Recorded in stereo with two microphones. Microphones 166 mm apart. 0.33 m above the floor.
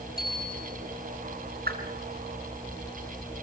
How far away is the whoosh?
About 3 m.